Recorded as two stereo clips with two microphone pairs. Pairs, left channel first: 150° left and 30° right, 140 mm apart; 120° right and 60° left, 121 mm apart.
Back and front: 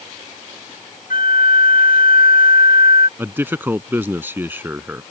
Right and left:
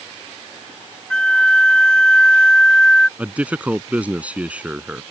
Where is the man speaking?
5° left.